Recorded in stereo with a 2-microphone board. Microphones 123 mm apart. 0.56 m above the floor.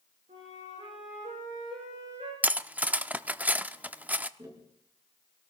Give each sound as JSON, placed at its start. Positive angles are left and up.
{"t": 0.3, "sound": "a flute", "side_deg": -85, "distance_m": 8.5}
{"t": 2.4, "sound": "cutlery clinking", "side_deg": -15, "distance_m": 0.5}
{"t": 4.4, "sound": "tapping", "side_deg": -30, "distance_m": 5.5}